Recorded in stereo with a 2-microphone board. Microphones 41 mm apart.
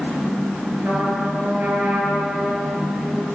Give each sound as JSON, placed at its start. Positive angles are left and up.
{"t": 0.8, "sound": "a trumpet", "side_deg": -85, "distance_m": 6.5}